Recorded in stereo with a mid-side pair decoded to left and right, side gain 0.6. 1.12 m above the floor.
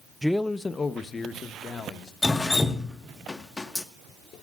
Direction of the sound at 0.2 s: Straight ahead.